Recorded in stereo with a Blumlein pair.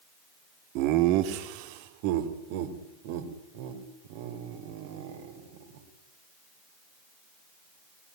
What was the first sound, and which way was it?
Laughter, 40° right.